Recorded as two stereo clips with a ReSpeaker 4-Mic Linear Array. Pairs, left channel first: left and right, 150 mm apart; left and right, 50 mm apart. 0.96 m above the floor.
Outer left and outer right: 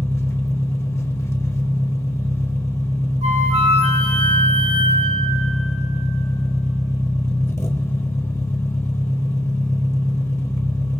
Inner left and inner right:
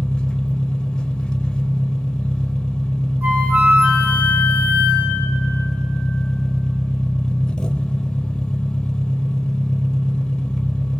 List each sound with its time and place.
0.0 s an engine running: 20° left (ahead or behind), 0.7 m
3.2 s a flute: 45° right (ahead or behind), 1.2 m